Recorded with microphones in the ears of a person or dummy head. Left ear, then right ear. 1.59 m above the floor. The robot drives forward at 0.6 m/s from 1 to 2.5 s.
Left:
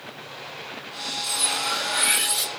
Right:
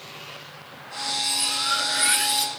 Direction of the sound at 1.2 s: 40° right (ahead or behind).